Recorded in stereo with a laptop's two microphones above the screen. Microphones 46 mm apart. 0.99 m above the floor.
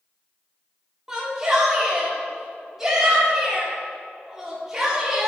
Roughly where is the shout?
Centre.